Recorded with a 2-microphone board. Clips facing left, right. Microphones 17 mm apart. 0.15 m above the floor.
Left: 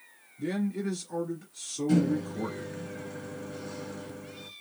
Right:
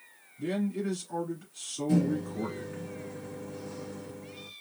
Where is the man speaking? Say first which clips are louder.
Even; 10° right (ahead or behind), 1.6 m.